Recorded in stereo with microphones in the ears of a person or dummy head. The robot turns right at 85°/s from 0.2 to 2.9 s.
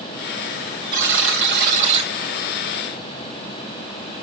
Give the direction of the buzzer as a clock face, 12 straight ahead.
4 o'clock.